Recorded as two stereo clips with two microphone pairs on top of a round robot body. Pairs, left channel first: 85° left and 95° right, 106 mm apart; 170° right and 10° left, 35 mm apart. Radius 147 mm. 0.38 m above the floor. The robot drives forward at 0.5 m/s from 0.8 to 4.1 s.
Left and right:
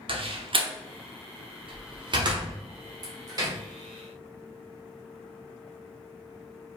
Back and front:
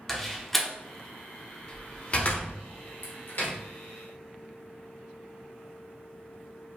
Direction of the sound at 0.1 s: 95° right.